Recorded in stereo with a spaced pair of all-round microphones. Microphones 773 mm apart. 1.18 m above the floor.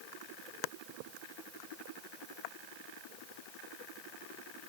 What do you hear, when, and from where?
Only background noise.